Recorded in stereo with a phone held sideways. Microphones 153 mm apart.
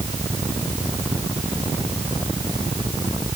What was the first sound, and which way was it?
Only background noise.